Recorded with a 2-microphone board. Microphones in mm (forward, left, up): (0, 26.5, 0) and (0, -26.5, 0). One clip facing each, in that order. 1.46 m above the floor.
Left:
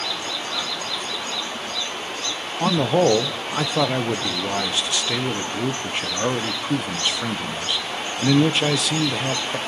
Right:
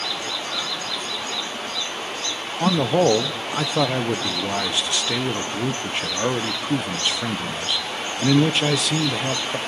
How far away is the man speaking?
About 1.0 m.